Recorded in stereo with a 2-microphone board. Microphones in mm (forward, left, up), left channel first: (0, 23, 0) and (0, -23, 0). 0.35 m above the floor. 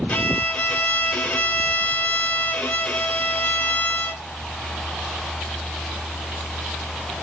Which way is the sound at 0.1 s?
30° left (ahead or behind).